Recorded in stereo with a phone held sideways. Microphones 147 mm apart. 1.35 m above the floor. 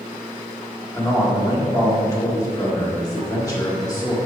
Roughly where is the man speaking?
Left.